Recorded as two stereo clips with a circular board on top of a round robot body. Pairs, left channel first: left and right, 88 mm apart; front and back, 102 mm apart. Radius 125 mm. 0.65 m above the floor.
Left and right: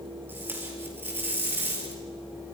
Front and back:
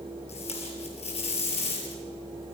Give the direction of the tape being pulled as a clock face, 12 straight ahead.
1 o'clock.